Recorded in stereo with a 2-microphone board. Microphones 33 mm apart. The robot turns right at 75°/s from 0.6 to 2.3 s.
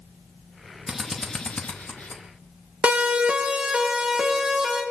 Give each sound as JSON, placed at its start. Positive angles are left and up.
{"t": 0.9, "sound": "a drill", "side_deg": -10, "distance_m": 1.9}
{"t": 2.8, "sound": "a siren", "side_deg": -45, "distance_m": 2.0}